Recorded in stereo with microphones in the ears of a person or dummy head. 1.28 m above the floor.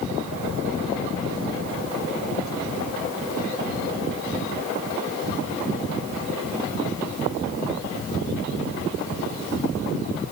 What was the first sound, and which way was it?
Only background noise.